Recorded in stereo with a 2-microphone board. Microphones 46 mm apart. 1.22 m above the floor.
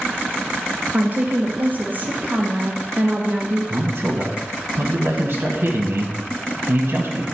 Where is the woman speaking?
40° right (ahead or behind), 1.1 m.